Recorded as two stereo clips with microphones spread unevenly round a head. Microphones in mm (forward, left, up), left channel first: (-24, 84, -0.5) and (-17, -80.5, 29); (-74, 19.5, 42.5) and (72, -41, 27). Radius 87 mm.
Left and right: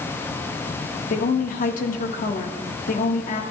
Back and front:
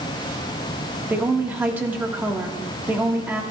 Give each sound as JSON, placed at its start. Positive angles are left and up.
{"t": 1.1, "sound": "a woman speaking", "azimuth_deg": 55, "distance_m": 1.4}